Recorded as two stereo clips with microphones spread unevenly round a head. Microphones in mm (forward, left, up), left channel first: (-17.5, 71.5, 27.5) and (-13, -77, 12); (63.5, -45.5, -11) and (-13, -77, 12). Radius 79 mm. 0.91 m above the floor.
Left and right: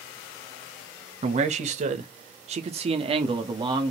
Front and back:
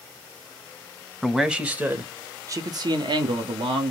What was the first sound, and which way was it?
A man speaking, 60° right.